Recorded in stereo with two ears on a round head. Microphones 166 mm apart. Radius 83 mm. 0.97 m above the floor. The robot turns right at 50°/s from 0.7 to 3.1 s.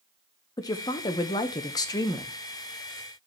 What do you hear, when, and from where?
0.6 s a woman speaking: 20° left (ahead or behind), 0.7 m; by 2.4 s 15° left (ahead or behind), 0.7 m